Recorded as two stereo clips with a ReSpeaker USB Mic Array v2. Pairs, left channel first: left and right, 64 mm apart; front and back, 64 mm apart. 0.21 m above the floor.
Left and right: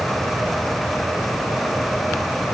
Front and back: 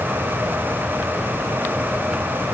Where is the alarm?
No alarm in this recording.